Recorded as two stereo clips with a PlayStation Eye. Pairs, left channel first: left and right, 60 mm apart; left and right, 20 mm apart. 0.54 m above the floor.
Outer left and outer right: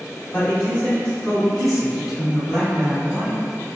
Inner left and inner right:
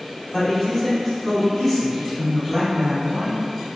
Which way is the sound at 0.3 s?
25° left (ahead or behind).